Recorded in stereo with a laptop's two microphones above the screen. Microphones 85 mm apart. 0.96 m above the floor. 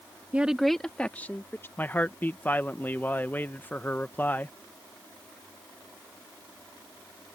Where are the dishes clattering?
No dishes clattering in this recording.